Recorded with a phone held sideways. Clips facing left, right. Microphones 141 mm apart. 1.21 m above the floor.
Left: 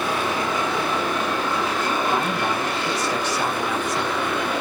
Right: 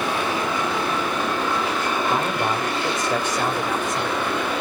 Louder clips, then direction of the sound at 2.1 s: Even; 50° right (ahead or behind).